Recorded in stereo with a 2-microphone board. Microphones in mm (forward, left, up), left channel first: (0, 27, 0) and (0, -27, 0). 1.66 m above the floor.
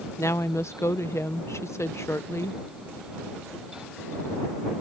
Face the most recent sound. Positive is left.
turn(degrees=60)  # may be behind; listen again after turning